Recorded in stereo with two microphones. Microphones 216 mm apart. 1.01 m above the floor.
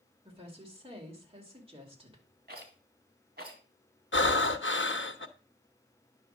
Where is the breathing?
60° left (ahead or behind), 0.8 m.